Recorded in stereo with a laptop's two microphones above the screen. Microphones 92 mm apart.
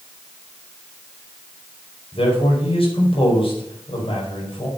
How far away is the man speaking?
About 4.5 m.